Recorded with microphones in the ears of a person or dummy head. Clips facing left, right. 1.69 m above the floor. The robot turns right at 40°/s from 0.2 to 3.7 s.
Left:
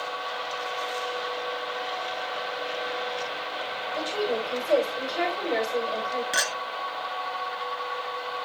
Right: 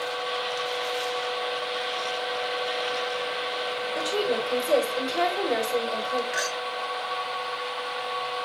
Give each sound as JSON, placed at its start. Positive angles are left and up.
{"t": 4.0, "sound": "a woman speaking", "side_deg": -45, "distance_m": 5.0}
{"t": 6.3, "sound": "a clink", "side_deg": 45, "distance_m": 1.3}